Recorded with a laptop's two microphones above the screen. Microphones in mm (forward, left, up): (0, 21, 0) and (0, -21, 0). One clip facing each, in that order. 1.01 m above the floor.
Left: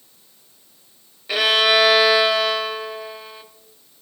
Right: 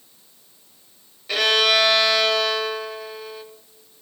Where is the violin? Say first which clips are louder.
Left 2 dB; 15° left (ahead or behind), 0.8 m.